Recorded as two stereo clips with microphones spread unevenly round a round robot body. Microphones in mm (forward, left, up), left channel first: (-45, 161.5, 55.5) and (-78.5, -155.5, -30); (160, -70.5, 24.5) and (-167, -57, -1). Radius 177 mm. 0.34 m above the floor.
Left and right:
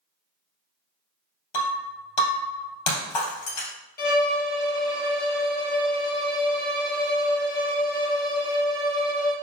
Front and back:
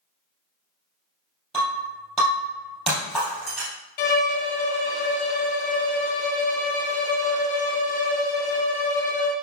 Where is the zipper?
No zipper in this recording.